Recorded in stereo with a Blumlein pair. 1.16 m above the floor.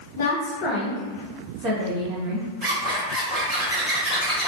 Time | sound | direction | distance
0.2 | a woman speaking | 60° left | 0.8 m
2.6 | a zipper | 10° right | 1.5 m